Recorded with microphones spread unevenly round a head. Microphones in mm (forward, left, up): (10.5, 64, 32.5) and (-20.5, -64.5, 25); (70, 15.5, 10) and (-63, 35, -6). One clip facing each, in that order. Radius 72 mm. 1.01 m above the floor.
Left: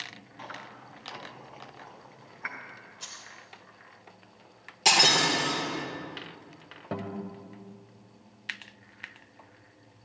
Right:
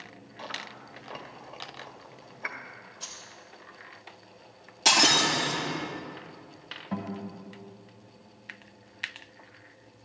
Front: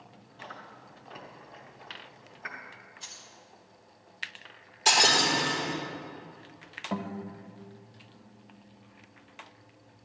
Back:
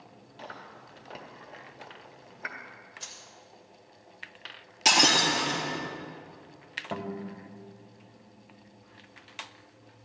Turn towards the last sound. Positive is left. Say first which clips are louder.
# even, even
turn(degrees=95)